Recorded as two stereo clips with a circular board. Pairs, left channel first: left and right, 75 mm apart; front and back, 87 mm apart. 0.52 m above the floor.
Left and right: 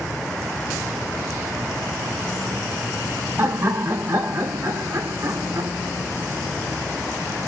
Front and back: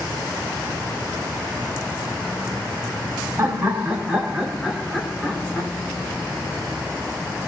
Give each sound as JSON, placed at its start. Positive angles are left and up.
{"t": 3.4, "sound": "laughter", "azimuth_deg": -125, "distance_m": 1.5}